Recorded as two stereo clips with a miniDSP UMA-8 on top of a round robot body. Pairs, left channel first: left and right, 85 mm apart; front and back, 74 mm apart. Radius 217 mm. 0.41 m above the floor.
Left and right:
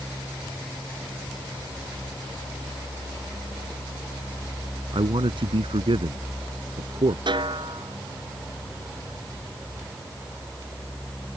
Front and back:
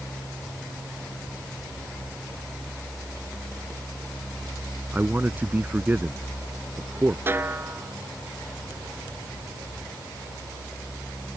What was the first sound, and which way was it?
A man speaking, 110° right.